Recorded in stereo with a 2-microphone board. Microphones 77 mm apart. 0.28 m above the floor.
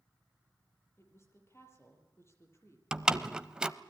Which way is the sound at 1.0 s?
35° left (ahead or behind).